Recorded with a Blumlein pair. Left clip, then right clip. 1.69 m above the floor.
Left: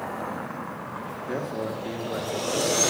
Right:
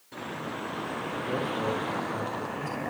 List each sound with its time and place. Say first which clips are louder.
1.3 s a man speaking: even; 20° left, 3.5 m; by 2.8 s 50° left, 4 m